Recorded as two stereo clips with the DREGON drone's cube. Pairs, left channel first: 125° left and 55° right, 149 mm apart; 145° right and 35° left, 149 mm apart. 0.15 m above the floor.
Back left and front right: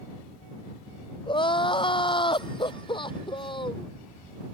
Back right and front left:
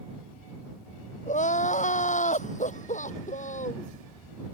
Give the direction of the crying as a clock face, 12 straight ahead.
6 o'clock.